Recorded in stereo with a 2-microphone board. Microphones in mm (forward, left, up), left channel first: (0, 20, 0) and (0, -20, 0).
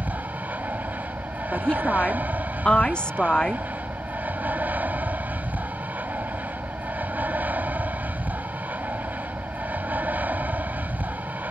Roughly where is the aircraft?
Right.